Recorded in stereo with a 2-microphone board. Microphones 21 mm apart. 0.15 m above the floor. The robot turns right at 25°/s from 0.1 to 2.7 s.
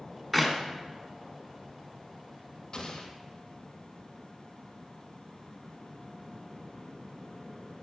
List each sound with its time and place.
0.3 s a clap: 5° left (ahead or behind), 1.1 m
2.7 s an explosion: 45° left (ahead or behind), 1.1 m